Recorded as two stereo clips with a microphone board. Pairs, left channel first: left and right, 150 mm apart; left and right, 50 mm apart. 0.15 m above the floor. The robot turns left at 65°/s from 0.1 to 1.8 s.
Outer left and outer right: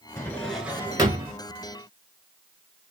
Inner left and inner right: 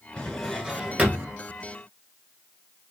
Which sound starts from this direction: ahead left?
A drawer, at 0.2 s.